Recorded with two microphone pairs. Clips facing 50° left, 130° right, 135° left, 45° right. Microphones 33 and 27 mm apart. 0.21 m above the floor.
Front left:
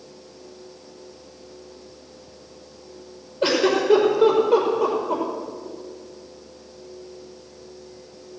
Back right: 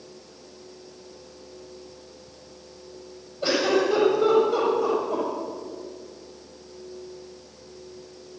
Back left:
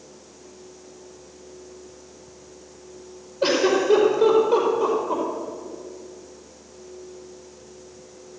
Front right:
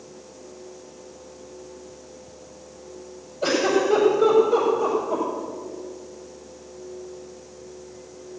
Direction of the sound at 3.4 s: 80° left.